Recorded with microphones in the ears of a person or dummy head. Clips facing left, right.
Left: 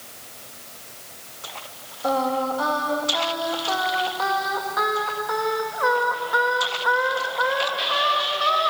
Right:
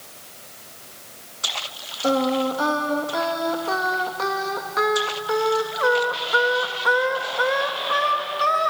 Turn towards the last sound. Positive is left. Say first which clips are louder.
# right 3 dB
turn(degrees=-30)  # may be behind; listen again after turning